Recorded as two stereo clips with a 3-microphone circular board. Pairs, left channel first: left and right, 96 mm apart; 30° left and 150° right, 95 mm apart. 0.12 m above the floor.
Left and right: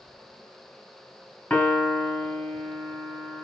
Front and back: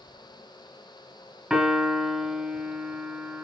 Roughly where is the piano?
Behind left.